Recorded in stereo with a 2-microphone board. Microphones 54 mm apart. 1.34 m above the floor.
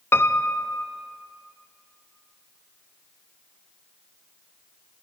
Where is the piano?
45° left (ahead or behind), 0.6 m.